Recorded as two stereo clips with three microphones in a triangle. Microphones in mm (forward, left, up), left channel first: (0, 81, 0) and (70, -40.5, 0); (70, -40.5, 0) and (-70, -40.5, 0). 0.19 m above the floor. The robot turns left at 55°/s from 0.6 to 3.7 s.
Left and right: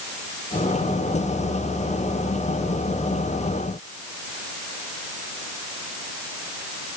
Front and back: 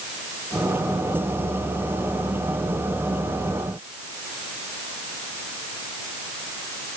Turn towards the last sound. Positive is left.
No sound to turn to.